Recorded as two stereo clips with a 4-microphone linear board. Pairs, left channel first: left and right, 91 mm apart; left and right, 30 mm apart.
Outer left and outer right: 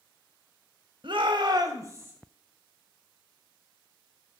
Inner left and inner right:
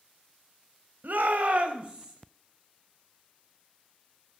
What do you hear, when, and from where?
1.0 s a shout: 65° right (ahead or behind), 1.9 m; by 2.1 s 25° right (ahead or behind), 1.7 m